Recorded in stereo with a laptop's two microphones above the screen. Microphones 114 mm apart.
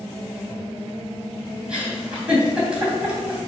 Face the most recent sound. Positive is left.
turn(degrees=-10)  # may be behind; listen again after turning